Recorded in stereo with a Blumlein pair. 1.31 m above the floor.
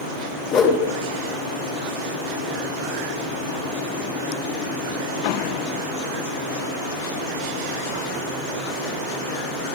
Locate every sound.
0.5 s a whoosh: 25° left, 3 m